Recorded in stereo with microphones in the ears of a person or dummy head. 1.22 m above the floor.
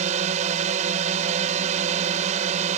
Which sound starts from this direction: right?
A drone, at 0.0 s.